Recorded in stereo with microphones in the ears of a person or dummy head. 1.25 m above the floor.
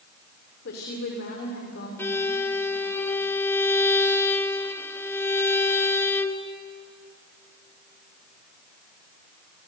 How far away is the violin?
About 1.1 m.